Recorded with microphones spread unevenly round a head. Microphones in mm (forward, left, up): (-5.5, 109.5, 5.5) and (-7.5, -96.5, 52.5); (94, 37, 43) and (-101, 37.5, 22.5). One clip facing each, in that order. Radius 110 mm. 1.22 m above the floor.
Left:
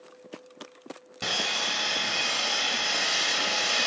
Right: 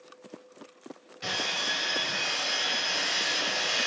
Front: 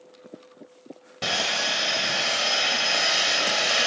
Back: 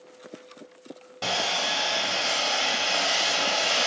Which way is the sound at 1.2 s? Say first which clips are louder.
Left 2 dB, even; 70° left.